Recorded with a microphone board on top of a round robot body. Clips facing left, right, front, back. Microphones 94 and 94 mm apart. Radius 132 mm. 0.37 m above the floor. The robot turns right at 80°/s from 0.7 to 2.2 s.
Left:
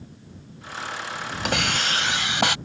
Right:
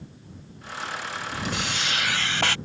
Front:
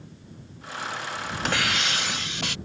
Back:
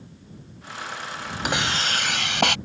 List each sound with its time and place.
1.4 s a hiss: 105° left; by 2.6 s 165° left